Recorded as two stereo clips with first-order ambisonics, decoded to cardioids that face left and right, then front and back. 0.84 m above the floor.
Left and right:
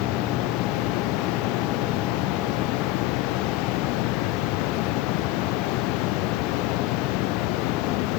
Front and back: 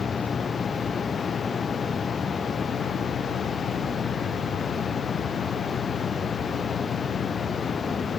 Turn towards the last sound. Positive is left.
turn(degrees=70)